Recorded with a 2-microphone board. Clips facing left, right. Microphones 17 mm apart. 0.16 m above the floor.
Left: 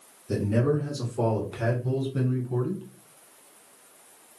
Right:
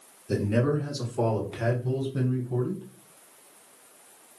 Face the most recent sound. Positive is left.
turn(degrees=35)  # may be behind; listen again after turning